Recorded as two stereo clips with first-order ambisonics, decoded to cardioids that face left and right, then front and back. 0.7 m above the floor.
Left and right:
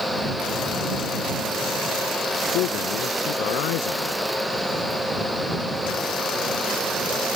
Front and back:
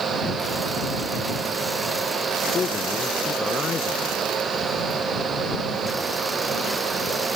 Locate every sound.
2.5 s a man speaking: 70° left